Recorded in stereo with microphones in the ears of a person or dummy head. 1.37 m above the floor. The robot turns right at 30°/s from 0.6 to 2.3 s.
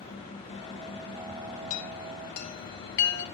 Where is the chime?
45° left (ahead or behind), 2.5 m; by 3.2 s 60° left (ahead or behind), 2.5 m.